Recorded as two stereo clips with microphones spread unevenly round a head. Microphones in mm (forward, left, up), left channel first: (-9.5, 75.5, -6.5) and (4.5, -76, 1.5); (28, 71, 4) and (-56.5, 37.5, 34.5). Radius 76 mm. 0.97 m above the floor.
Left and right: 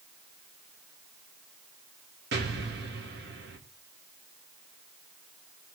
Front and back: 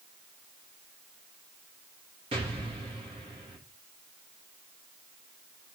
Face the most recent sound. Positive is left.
turn(degrees=-105)